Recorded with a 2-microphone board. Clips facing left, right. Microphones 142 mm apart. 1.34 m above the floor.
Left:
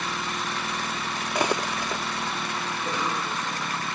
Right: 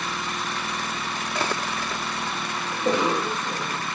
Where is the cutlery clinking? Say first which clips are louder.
Left 3 dB; 15° left (ahead or behind).